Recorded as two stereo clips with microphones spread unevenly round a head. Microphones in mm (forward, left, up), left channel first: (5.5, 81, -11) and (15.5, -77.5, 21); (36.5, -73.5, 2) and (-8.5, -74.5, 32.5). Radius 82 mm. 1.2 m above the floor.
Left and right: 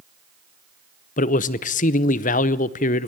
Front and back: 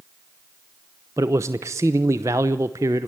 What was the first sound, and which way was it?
A man speaking, 115° left.